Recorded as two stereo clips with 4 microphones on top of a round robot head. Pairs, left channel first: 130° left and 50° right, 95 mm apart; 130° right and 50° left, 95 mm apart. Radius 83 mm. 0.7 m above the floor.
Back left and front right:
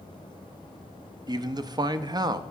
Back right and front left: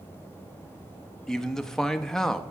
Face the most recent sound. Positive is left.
turn(degrees=-50)